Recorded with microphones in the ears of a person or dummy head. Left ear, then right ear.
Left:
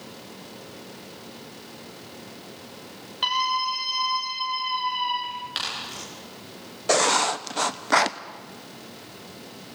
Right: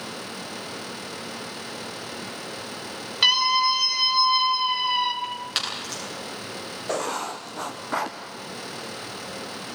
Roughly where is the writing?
Left.